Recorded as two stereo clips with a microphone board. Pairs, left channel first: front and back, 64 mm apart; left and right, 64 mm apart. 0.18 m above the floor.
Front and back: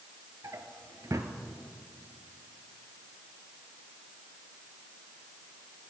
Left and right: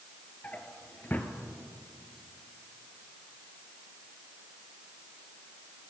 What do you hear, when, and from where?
0.4 s a drawer: 150° left, 0.9 m